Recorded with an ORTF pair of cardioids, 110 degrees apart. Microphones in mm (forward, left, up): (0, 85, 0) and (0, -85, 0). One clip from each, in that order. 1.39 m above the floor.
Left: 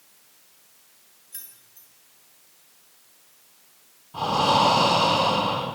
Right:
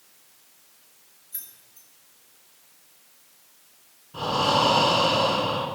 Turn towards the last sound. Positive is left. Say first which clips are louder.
# left 2 dB
turn(degrees=10)